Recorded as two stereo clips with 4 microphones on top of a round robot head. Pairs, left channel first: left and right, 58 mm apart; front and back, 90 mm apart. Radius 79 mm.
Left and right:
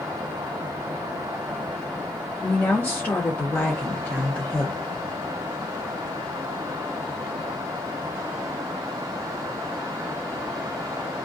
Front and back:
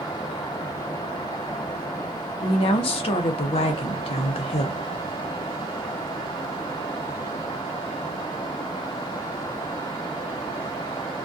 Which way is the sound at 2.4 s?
20° left.